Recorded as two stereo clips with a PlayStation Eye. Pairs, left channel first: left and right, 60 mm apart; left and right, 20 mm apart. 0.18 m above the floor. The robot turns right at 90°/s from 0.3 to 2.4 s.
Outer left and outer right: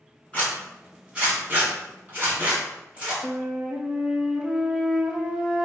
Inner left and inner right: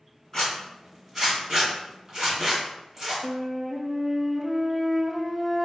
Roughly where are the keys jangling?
No keys jangling in this recording.